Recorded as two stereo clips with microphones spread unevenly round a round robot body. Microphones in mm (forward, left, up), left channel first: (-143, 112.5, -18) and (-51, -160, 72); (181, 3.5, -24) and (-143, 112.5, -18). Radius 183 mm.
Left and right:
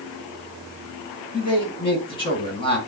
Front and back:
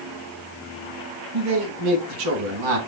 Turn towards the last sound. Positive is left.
turn(degrees=175)